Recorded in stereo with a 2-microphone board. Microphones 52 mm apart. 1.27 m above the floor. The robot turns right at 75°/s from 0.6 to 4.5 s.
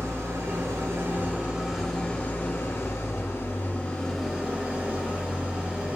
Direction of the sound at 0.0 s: 90° right.